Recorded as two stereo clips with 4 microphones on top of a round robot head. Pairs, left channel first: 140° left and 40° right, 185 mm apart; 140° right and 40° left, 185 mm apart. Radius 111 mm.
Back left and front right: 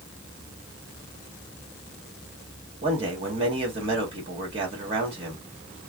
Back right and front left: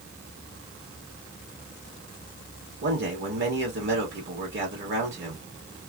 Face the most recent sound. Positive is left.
turn(degrees=20)